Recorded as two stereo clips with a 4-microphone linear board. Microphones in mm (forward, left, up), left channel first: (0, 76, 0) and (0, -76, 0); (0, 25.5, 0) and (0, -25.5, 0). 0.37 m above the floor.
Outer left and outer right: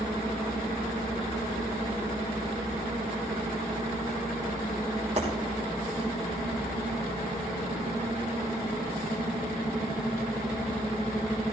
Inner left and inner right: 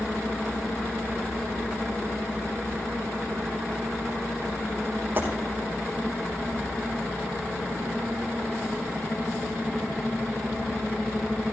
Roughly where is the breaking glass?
Right.